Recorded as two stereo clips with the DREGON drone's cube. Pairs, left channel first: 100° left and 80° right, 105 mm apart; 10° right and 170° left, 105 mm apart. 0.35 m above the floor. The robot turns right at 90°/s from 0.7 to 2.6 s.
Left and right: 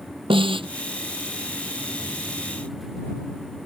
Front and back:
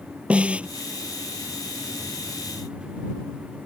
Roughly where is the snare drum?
Right.